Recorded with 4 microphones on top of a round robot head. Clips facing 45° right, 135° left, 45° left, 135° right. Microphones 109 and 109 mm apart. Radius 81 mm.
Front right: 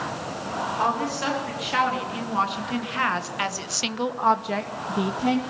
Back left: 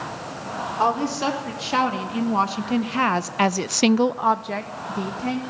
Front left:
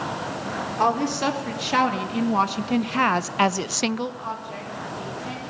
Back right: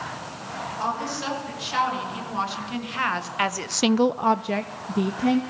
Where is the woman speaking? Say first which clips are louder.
Back left 5 dB, front left 7 dB; 75° left, 4.5 m; by 5.4 s 115° right, 2 m.